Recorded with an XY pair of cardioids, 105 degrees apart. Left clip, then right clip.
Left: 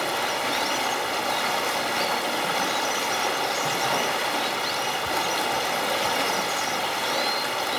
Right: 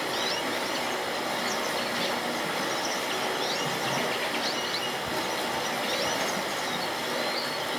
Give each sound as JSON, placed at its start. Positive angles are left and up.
{"t": 0.0, "sound": "running water", "azimuth_deg": 55, "distance_m": 3.0}